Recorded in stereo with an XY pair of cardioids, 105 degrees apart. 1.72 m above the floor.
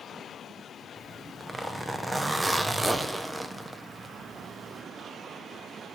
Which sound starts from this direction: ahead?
A zipper, at 1.0 s.